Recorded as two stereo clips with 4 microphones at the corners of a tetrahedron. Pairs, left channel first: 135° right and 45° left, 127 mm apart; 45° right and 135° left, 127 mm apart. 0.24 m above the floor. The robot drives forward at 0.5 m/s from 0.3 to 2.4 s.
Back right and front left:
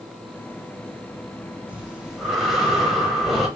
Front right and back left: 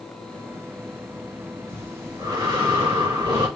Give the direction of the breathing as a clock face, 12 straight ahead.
9 o'clock.